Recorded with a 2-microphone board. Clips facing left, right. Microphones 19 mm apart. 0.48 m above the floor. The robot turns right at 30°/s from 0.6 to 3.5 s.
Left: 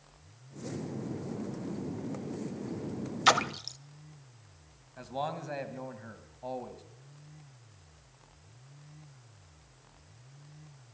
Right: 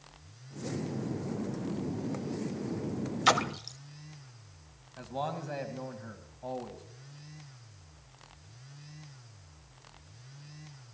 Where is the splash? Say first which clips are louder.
Left 1 dB; 10° left (ahead or behind), 0.5 m; by 3.8 s 15° left (ahead or behind), 0.5 m.